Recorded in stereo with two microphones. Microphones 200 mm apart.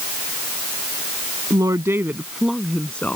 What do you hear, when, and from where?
1.5 s a woman speaking: 20° right (ahead or behind); by 3.2 s 10° left (ahead or behind)